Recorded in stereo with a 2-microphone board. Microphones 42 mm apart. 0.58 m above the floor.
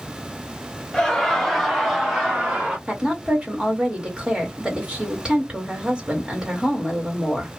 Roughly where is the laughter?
Centre.